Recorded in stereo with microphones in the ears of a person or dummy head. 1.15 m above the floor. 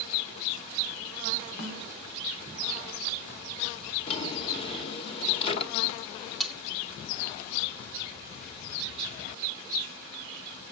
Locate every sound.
1.6 s a snare drum: 40° left (ahead or behind), 3 m
4.1 s a drawer: 45° left (ahead or behind), 1.6 m
6.4 s cutlery clinking: 5° right (ahead or behind), 1.0 m